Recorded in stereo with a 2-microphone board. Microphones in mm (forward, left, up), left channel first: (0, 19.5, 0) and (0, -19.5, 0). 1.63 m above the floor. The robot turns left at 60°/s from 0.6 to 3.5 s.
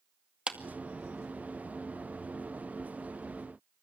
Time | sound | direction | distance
0.5 | a clap | 25° right (ahead or behind) | 2 m